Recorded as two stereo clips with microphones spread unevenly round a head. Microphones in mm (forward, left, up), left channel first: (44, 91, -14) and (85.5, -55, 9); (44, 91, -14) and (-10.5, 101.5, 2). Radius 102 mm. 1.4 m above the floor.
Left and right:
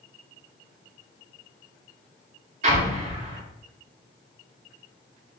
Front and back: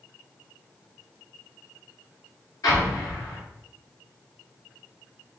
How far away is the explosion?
About 3 m.